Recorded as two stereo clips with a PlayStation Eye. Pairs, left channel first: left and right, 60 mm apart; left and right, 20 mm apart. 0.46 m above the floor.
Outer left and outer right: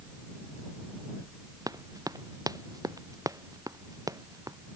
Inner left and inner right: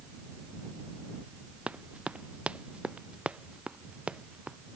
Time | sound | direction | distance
1.7 | running footsteps | 80° right | ?